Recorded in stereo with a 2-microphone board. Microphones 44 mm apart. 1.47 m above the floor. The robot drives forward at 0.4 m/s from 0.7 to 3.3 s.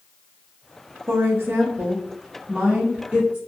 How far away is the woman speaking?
About 0.6 m.